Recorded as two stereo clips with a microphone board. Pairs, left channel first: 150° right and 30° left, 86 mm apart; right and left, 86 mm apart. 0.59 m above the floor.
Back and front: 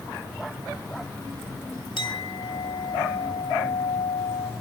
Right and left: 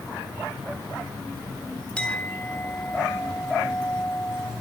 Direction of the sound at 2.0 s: 165° right.